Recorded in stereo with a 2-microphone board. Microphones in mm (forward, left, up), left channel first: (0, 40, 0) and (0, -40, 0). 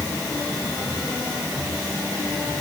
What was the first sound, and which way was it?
Only background noise.